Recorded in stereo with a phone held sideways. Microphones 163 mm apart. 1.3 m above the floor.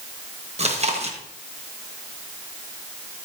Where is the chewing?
40° right (ahead or behind), 1.3 m.